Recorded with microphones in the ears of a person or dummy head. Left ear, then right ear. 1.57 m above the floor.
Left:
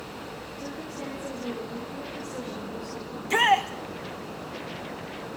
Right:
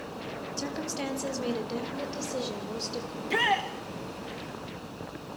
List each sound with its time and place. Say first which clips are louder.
0.6 s a woman speaking: right 4 dB; 70° right (ahead or behind), 5.5 m; by 3.0 s 65° right (ahead or behind), 7.5 m
3.1 s a shout: left 5 dB; 35° left (ahead or behind), 2 m